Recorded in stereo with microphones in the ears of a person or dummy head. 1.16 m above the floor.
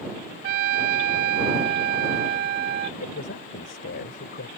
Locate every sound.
0.4 s a trumpet: 55° right (ahead or behind)
3.0 s a man speaking: 50° left (ahead or behind)